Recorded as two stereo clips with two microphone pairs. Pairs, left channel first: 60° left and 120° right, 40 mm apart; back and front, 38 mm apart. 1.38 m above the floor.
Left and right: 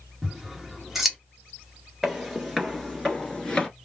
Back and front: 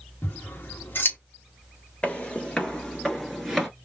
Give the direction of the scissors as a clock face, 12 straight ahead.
7 o'clock.